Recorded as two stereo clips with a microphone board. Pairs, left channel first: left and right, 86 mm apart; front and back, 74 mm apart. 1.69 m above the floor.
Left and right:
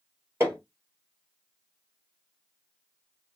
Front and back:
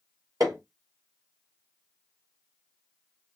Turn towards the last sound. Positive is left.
turn(degrees=-145)